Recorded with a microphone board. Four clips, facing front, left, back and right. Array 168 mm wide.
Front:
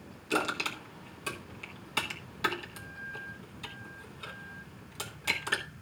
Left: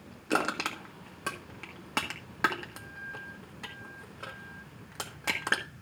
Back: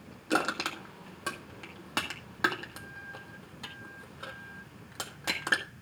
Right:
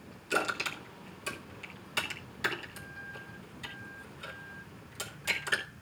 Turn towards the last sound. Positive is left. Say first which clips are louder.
# left 3 dB, back 2 dB
turn(degrees=130)